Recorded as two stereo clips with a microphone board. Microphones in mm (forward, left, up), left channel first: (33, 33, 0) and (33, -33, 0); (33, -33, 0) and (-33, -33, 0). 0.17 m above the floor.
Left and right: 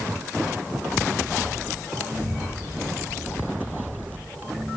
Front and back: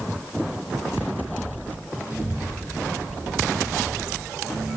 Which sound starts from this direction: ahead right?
A child speaking, at 2.1 s.